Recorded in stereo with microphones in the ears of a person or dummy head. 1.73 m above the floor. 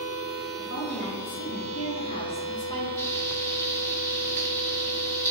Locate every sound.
0.6 s a woman speaking: 70° left (ahead or behind), 1.7 m; by 2.9 s 30° left (ahead or behind), 1.6 m
3.0 s frying: 15° left (ahead or behind), 1.1 m